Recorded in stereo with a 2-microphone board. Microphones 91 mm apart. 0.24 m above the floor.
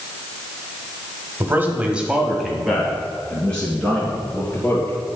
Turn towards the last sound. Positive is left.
turn(degrees=15)  # may be behind; listen again after turning